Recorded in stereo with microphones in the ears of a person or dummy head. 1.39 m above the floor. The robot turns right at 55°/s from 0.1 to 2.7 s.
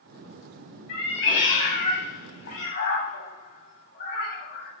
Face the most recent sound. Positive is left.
turn(degrees=45)  # may be behind; listen again after turning